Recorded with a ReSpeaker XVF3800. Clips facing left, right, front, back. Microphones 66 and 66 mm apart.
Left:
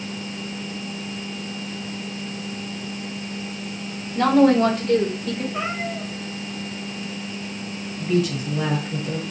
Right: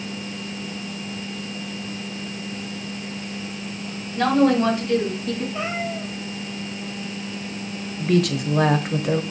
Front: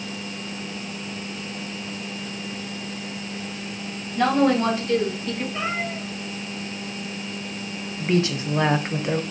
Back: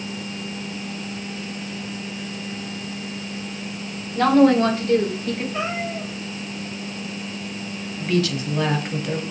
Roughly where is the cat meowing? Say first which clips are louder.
Even, back 1 dB; behind left.